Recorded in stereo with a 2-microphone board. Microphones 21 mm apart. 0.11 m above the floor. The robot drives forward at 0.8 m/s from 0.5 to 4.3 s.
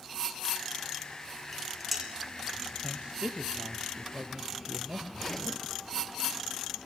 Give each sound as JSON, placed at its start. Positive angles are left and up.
{"t": 1.5, "sound": "dishes clattering", "side_deg": -5, "distance_m": 5.5}
{"t": 2.8, "sound": "a man speaking", "side_deg": -55, "distance_m": 3.0}
{"t": 5.1, "sound": "a zipper", "side_deg": 15, "distance_m": 1.1}